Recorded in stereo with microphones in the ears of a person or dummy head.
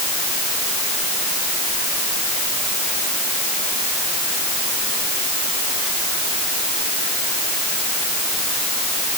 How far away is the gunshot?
I don't hear a gunshot.